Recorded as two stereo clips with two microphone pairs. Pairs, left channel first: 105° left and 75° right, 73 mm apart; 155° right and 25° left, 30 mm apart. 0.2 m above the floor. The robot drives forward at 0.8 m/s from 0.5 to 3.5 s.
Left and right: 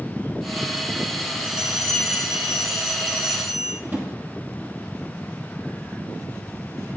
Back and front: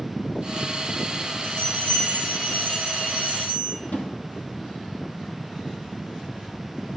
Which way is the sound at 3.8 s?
135° right.